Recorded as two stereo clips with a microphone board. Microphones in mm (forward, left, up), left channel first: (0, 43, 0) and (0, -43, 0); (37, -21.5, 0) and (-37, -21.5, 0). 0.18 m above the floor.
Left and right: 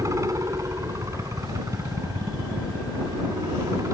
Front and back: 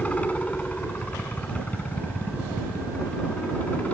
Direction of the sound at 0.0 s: 60° right.